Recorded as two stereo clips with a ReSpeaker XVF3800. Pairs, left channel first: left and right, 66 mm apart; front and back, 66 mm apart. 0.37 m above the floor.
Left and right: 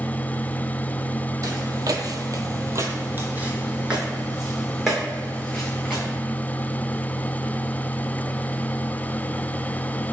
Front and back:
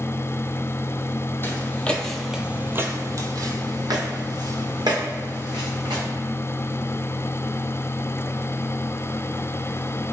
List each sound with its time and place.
1.4 s footsteps: 55° right, 0.7 m; by 6.0 s straight behind, 1.9 m